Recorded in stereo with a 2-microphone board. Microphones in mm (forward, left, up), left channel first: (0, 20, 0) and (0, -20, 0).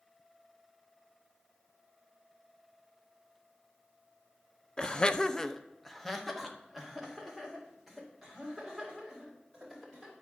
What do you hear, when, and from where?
4.8 s laughter: 25° left (ahead or behind), 0.6 m; by 10.1 s centre (ahead or behind), 5.5 m